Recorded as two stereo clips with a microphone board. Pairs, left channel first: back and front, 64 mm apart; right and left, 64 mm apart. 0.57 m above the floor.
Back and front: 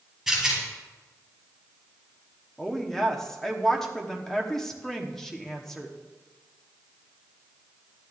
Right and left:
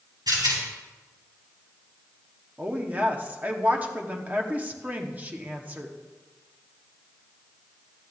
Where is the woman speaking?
110° left, 1.1 m.